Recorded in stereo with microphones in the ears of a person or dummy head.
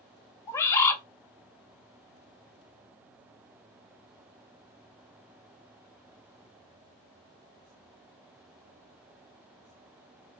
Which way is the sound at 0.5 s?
20° left (ahead or behind).